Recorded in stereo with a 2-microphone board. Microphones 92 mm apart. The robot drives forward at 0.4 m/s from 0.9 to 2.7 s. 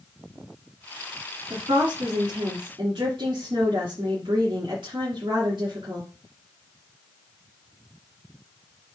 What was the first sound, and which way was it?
A woman speaking, 65° right (ahead or behind).